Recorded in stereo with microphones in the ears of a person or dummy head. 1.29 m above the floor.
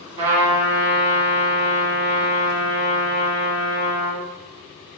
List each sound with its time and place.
0.2 s a trumpet: 35° right (ahead or behind), 1.5 m